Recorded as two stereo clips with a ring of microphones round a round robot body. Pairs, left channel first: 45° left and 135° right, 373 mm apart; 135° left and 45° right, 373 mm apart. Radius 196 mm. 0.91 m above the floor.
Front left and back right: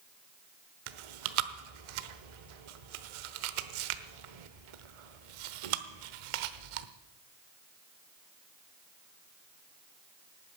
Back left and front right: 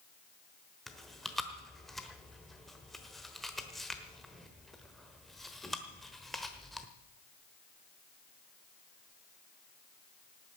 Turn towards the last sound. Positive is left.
turn(degrees=-135)